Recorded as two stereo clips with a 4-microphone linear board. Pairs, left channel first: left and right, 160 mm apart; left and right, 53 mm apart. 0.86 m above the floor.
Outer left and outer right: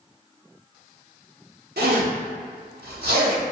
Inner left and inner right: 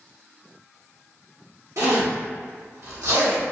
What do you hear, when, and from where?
1.8 s a zipper: 80° right, 1.2 m